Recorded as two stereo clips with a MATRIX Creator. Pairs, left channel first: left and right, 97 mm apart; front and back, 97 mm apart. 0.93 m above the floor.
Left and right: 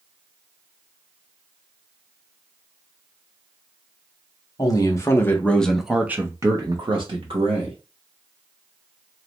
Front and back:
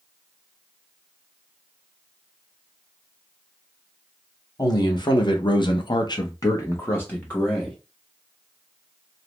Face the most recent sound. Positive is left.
turn(degrees=-80)